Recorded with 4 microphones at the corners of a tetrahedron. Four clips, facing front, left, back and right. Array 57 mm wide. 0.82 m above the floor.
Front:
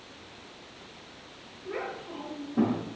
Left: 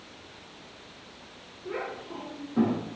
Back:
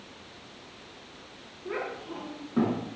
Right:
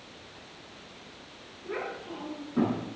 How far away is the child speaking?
About 6 m.